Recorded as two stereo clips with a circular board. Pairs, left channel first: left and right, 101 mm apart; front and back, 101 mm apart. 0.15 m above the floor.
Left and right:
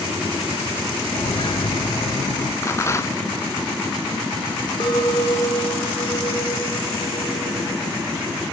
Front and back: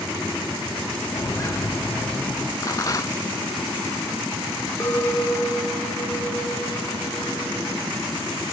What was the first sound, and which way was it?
Footsteps, 50° left.